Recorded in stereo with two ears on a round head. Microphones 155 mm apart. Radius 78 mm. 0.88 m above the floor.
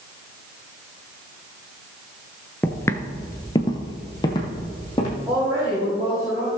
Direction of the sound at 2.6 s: 10° left (ahead or behind).